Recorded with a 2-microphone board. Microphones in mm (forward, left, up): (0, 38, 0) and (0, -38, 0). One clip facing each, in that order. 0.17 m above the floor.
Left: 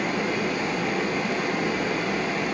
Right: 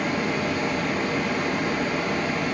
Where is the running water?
Centre (ahead or behind), 7 m.